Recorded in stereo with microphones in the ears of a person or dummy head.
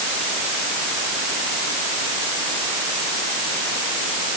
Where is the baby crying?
No baby crying in this recording.